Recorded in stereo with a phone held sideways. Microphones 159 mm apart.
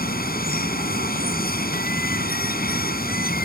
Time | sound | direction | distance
0.0 | running water | 70° left (ahead or behind) | ?